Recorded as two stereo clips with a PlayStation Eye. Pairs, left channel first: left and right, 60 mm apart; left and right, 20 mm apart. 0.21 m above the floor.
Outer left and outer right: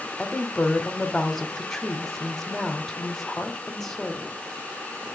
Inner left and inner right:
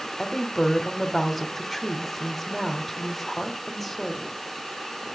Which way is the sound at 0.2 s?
5° left (ahead or behind).